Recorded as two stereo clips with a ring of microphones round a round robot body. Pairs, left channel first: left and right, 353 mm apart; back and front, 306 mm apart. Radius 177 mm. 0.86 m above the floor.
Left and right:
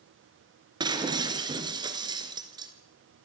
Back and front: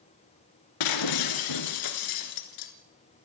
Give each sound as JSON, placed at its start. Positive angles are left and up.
{"t": 0.8, "sound": "breaking glass", "azimuth_deg": -170, "distance_m": 2.5}